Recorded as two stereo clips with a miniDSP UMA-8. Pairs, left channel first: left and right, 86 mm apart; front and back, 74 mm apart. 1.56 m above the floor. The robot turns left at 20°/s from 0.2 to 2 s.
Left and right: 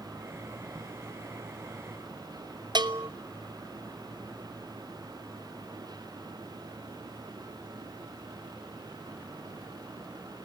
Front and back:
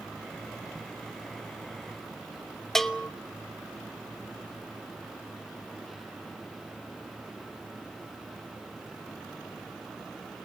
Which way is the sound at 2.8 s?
85° right.